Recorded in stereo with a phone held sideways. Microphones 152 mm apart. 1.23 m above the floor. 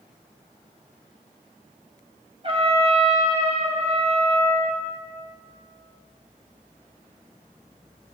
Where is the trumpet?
40° right (ahead or behind), 1.9 m.